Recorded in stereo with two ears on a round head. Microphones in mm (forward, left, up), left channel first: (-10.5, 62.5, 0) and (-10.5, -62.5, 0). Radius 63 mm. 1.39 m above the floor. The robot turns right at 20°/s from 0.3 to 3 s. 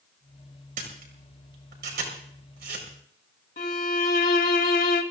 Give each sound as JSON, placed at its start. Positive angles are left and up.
{"t": 0.8, "sound": "a camera shutter", "side_deg": -65, "distance_m": 4.5}
{"t": 3.6, "sound": "a violin", "side_deg": 70, "distance_m": 1.7}